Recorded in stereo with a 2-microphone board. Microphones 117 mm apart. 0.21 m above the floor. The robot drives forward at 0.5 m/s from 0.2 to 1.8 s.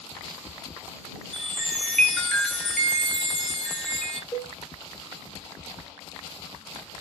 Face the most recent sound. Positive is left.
turn(degrees=50)  # may be behind; listen again after turning